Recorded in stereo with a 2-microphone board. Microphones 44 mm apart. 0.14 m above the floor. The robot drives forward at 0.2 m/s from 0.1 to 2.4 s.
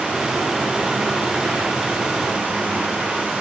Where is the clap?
No clap in this recording.